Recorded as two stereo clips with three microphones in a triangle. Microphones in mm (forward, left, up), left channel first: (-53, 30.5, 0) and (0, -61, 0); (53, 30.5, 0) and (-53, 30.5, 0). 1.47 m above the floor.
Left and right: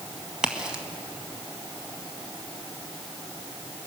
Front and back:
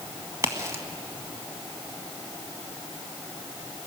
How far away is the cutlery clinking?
No cutlery clinking in this recording.